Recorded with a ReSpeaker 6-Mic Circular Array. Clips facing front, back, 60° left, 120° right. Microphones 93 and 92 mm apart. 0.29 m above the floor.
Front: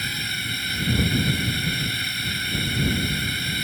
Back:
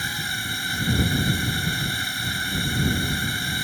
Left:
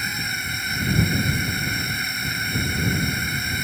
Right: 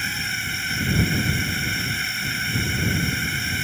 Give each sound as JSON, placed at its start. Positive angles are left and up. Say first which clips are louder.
{"t": 0.0, "sound": "a drone", "louder": "back 2 dB, even", "azimuth_deg": 140}